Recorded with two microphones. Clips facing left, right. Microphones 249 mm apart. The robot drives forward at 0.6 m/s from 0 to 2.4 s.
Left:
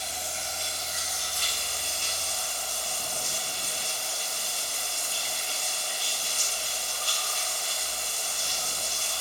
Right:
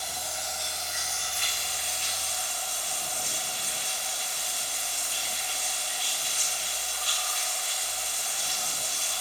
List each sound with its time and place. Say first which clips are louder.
0.0 s running water: even; 25° left (ahead or behind), 1.6 m; by 9.2 s 45° left (ahead or behind), 1.0 m